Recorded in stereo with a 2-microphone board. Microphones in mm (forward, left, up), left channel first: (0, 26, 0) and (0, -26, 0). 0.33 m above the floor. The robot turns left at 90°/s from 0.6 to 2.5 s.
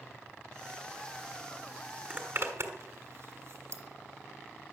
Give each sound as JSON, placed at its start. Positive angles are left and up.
{"t": 2.1, "sound": "a zipper", "side_deg": -30, "distance_m": 1.8}